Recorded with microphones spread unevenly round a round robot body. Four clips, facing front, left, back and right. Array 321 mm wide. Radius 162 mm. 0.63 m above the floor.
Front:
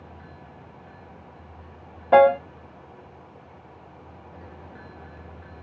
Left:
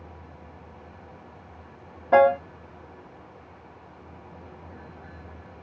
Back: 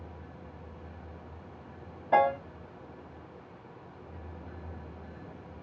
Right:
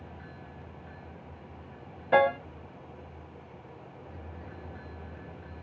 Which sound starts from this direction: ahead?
A piano, at 2.1 s.